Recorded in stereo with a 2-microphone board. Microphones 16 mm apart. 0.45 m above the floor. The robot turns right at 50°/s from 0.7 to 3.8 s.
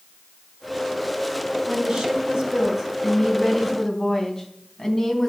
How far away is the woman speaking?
About 3.5 m.